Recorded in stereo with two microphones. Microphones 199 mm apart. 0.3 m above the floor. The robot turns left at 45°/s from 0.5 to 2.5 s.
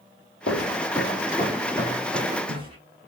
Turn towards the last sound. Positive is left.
turn(degrees=-25)  # may be behind; listen again after turning